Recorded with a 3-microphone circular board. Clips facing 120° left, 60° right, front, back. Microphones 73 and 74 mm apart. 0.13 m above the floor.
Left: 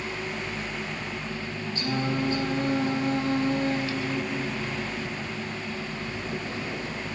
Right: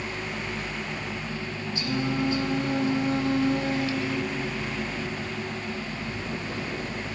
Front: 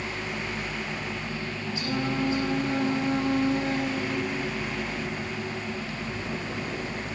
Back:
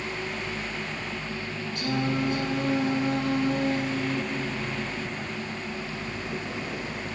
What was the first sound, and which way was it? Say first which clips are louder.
Singing: even, back 1 dB; 165° left.